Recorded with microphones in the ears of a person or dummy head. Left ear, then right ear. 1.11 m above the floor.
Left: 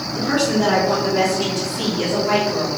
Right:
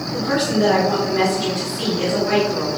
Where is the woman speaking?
25° left (ahead or behind), 3 m; by 2.7 s centre (ahead or behind), 3.5 m.